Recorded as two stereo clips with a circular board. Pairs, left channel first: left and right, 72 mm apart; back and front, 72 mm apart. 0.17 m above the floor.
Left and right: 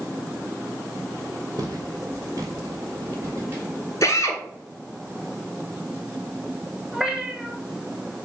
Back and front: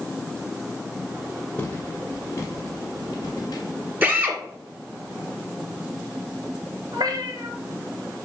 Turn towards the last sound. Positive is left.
turn(degrees=-5)